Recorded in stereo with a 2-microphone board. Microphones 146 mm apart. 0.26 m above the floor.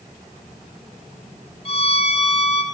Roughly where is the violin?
Left.